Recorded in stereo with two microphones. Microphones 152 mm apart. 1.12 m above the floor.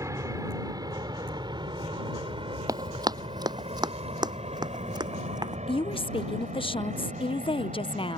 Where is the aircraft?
20° right (ahead or behind); by 8.2 s 55° right (ahead or behind).